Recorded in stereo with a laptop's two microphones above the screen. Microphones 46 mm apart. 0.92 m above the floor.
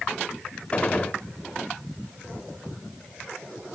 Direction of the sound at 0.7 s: 25° left (ahead or behind).